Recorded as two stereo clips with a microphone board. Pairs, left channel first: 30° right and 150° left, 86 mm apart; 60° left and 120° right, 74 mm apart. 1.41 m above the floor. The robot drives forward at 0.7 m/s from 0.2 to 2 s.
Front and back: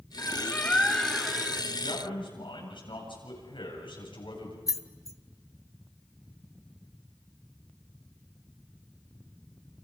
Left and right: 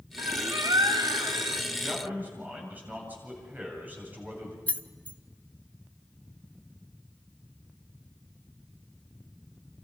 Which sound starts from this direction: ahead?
Keys jangling, at 4.7 s.